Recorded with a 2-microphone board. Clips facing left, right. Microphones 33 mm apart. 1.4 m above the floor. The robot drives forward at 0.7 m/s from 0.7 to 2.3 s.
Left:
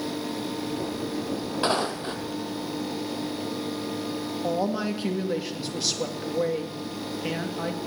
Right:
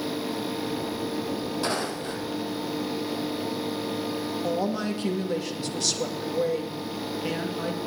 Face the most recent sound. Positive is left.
turn(degrees=10)  # may be behind; listen again after turning